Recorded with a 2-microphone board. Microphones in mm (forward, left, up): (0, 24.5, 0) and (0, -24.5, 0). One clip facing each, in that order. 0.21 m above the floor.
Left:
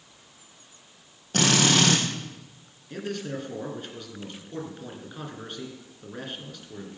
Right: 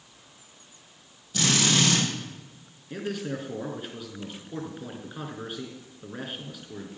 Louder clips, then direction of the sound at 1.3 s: Left 3 dB; 60° left (ahead or behind).